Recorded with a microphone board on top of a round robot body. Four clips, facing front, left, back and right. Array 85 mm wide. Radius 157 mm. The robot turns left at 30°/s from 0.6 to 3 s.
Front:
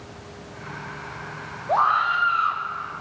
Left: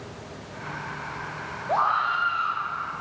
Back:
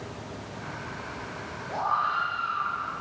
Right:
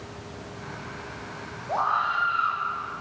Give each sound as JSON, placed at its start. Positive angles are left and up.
{"t": 1.7, "sound": "a scream", "azimuth_deg": 20, "distance_m": 3.0}